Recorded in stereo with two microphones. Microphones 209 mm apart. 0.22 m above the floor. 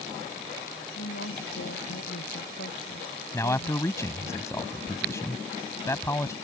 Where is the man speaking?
15° left (ahead or behind).